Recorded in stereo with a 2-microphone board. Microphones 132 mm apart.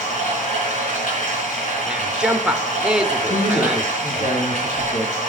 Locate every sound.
0.0 s running water: 75° left (ahead or behind), 4.5 m
1.9 s a man speaking: 5° right (ahead or behind), 0.8 m
3.3 s a man speaking: 75° left (ahead or behind), 5.5 m